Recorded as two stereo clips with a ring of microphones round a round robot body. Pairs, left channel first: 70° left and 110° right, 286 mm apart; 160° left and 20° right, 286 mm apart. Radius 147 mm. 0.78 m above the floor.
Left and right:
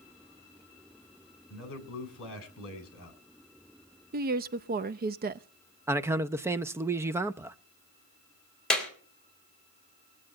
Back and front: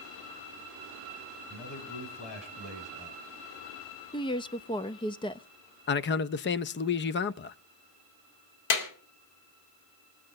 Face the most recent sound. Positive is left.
turn(degrees=155)